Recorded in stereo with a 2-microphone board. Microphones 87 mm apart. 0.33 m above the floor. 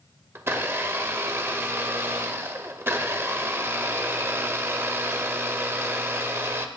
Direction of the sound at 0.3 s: 25° right (ahead or behind).